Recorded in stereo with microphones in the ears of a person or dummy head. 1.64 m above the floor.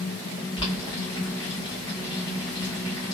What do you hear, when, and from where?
0.6 s boiling: 25° left (ahead or behind), 1.2 m